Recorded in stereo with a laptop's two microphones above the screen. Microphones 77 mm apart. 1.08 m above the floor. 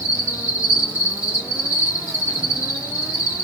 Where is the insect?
20° right (ahead or behind), 1.9 m.